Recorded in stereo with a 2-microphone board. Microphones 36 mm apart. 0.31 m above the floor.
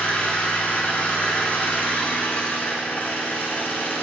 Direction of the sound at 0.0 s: 55° left (ahead or behind).